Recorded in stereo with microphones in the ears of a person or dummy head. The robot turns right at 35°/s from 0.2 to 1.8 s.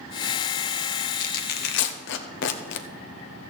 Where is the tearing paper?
45° left (ahead or behind), 1.1 m; by 2.9 s 65° left (ahead or behind), 1.1 m.